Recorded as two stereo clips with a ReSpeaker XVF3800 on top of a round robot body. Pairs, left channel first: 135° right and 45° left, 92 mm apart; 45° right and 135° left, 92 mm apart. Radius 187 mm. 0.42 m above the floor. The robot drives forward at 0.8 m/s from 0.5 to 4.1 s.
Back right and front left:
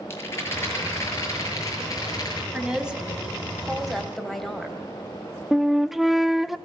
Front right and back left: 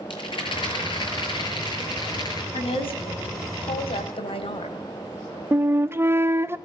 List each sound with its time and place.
0.1 s a rattle: 75° right, 6.5 m; by 2.4 s 90° right, 6.5 m
2.5 s a woman speaking: 35° right, 4 m; by 4.8 s 50° right, 3 m
5.5 s a flute: 130° left, 1.1 m